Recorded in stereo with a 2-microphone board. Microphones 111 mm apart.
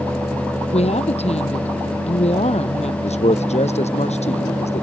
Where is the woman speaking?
70° left (ahead or behind).